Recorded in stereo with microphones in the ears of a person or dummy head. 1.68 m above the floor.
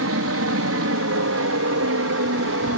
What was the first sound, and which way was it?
An aircraft, 70° right (ahead or behind).